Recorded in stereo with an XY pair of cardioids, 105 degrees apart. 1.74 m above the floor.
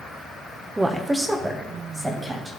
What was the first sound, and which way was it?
A woman speaking, 15° right.